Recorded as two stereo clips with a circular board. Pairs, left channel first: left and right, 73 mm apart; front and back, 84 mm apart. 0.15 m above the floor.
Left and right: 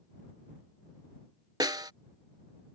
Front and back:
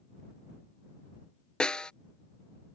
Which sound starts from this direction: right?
A snare drum, at 1.6 s.